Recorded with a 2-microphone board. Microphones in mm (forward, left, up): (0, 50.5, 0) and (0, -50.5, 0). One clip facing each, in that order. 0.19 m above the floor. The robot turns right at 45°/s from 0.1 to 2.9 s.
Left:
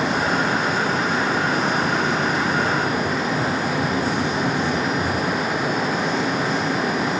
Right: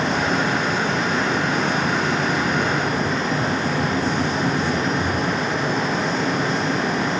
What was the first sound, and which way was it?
Only background noise.